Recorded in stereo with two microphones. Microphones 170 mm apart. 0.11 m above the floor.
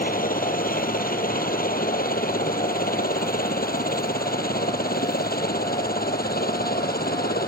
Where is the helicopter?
55° left (ahead or behind); by 7.5 s 60° left (ahead or behind).